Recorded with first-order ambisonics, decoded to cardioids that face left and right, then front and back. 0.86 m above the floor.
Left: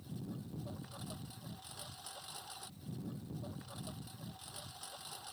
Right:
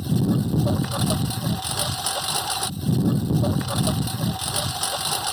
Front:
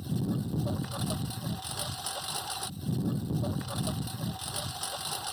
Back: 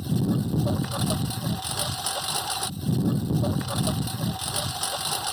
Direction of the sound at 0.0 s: 115° right.